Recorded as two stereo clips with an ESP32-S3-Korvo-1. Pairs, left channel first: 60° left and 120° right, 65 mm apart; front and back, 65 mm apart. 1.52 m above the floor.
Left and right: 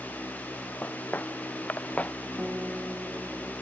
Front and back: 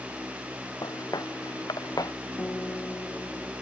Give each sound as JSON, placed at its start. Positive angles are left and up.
{"t": 0.8, "sound": "footsteps", "azimuth_deg": -5}
{"t": 2.4, "sound": "a guitar", "azimuth_deg": -50}